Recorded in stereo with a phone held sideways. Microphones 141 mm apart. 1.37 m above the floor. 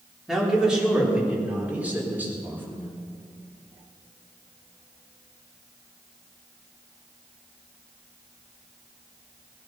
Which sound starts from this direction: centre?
A man speaking, at 0.3 s.